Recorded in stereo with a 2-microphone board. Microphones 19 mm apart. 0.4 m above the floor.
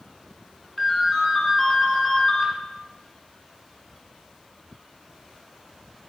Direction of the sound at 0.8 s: 5° right (ahead or behind).